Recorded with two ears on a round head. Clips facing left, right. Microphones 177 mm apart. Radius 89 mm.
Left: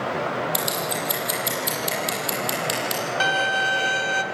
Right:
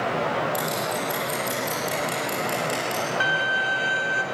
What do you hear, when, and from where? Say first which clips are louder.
0.5 s scissors: even; 75° left (ahead or behind), 7.5 m
3.2 s a violin: left 3 dB; 55° left (ahead or behind), 1.4 m